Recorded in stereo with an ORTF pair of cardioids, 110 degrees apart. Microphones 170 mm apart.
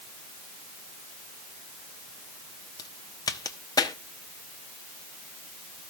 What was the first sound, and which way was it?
A crack, 20° left.